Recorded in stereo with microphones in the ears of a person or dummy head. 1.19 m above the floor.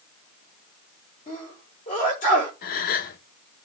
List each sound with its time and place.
1.3 s a sneeze: 35° left (ahead or behind), 4 m
2.6 s a gasp: 45° left (ahead or behind), 1.0 m